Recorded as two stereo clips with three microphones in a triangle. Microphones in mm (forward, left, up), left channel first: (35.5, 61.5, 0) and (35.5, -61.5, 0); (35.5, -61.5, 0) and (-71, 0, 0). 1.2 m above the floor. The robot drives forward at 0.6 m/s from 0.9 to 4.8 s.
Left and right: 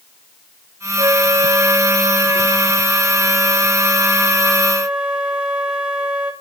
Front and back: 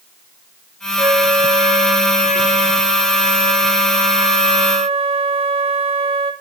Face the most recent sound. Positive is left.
turn(degrees=-170)